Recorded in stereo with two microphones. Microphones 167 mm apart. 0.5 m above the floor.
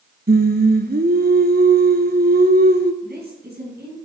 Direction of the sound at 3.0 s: 70° right (ahead or behind).